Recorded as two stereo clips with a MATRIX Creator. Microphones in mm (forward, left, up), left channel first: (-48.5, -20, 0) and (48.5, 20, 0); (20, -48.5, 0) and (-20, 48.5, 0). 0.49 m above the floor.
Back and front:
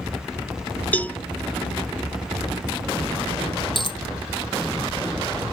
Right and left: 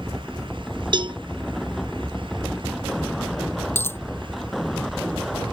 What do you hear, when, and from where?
0.9 s a cowbell: 135° left
3.8 s a dropped coin: 130° right